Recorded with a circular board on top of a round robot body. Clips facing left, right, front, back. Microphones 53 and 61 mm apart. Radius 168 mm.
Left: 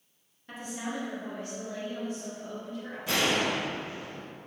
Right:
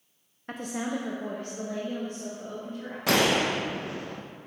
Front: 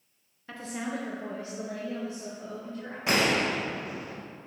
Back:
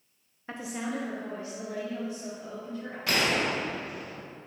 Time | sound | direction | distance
0.5 | a woman speaking | 125° right | 0.9 m
3.1 | a gunshot | 70° right | 0.6 m